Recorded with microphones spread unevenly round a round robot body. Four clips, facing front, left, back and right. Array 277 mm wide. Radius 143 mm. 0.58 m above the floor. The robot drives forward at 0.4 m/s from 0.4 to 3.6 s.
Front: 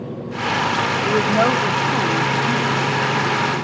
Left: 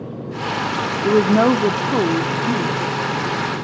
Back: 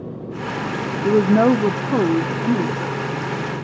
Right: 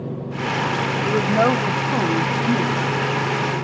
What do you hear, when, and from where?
1.0 s a woman speaking: 135° left, 0.8 m; by 3.0 s 165° left, 1.3 m